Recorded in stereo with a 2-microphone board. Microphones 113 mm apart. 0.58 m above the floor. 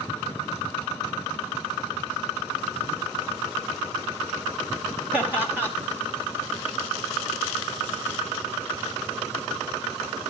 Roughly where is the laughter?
Centre.